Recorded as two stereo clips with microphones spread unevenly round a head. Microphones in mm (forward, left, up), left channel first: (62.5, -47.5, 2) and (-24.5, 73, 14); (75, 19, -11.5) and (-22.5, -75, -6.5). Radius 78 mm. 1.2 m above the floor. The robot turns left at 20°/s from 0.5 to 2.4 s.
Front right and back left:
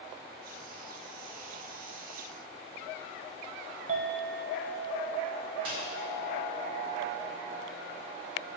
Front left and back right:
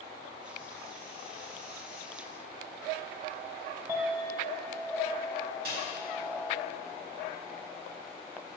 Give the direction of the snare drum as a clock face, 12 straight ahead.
6 o'clock.